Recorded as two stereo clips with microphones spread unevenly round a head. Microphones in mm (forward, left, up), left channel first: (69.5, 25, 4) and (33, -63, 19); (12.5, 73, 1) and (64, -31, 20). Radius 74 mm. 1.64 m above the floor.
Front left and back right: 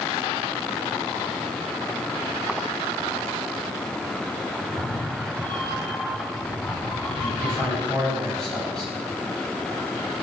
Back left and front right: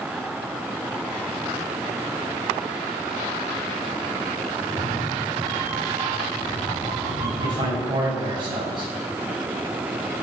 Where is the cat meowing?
10° right, 9.5 m; by 8.3 s straight ahead, 11.5 m.